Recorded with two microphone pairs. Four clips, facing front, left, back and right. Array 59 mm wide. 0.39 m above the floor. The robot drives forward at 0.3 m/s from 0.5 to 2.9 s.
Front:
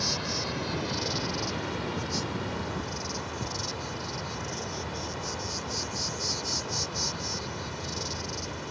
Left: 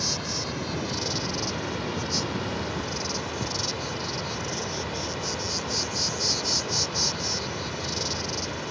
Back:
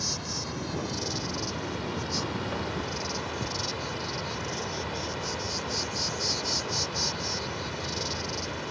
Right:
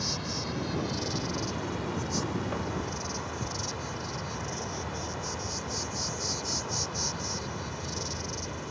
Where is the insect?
35° left; by 8.7 s 125° left.